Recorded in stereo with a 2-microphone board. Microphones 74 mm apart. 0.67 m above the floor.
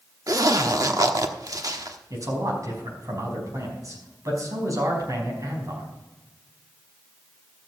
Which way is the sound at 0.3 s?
55° right (ahead or behind).